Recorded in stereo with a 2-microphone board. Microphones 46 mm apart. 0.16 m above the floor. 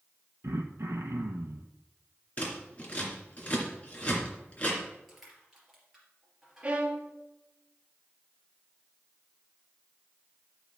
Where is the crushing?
5° right (ahead or behind), 3.5 m.